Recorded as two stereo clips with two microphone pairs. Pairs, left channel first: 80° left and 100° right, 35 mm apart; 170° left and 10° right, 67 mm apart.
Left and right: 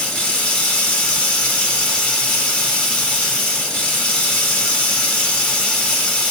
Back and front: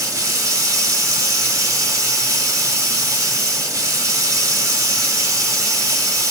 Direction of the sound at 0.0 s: 15° left.